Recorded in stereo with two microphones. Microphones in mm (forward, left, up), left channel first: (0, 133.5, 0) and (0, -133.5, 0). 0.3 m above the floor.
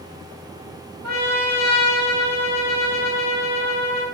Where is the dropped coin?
I don't hear a dropped coin.